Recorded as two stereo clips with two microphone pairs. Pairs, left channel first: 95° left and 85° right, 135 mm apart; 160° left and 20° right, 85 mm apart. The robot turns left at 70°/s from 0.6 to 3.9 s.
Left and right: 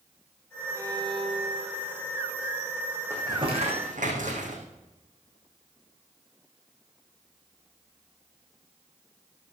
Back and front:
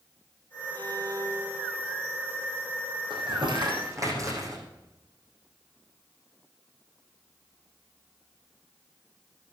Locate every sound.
0.8 s a violin: 25° right, 1.1 m; by 2.0 s 115° right, 1.1 m
3.1 s crumpling: 15° right, 6 m; by 4.6 s 70° right, 6 m